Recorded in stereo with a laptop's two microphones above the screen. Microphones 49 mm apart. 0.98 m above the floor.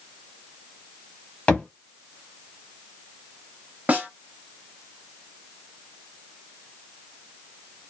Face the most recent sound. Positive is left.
turn(degrees=-30)  # may be behind; listen again after turning